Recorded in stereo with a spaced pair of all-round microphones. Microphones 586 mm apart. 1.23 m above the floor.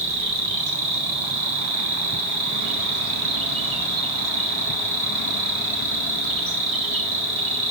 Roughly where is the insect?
Right.